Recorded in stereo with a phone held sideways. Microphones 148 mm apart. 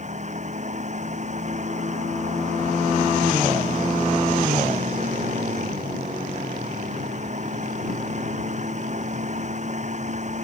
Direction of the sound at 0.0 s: 55° right (ahead or behind).